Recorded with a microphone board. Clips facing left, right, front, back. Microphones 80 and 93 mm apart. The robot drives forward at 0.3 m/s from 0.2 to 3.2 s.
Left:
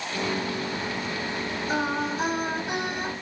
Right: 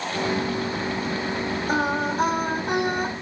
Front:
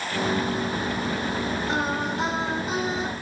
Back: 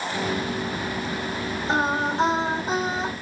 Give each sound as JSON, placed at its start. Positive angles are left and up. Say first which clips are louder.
{"t": 1.7, "sound": "singing", "louder": "right 3 dB, back 7 dB", "azimuth_deg": -120, "distance_m": 1.8}